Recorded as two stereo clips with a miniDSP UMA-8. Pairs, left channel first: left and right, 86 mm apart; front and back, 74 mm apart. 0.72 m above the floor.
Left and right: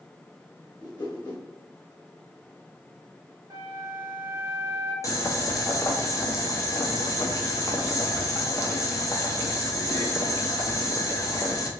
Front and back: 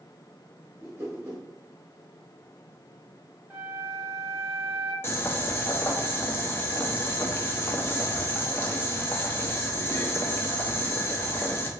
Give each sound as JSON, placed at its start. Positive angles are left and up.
{"t": 0.8, "sound": "a whoosh", "azimuth_deg": 125, "distance_m": 1.0}
{"t": 3.5, "sound": "a flute", "azimuth_deg": -125, "distance_m": 0.8}
{"t": 5.0, "sound": "boiling", "azimuth_deg": 50, "distance_m": 0.5}